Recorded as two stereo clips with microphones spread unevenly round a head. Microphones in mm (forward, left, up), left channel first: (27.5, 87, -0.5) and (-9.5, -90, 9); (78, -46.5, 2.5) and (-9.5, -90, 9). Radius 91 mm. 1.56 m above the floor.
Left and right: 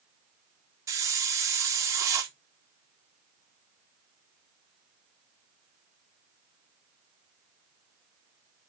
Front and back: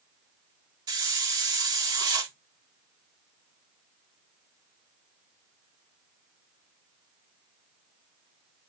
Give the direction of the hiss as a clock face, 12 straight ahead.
6 o'clock.